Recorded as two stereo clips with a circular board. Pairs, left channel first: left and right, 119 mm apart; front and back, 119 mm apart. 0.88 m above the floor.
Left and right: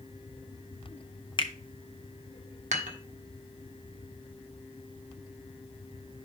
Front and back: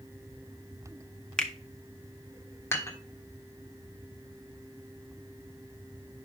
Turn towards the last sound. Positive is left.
turn(degrees=-70)